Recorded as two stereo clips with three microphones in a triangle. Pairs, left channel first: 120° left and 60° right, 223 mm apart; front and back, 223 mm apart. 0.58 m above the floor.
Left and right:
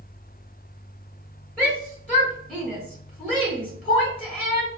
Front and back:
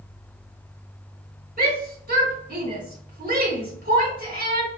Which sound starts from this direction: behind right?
A shout, at 1.6 s.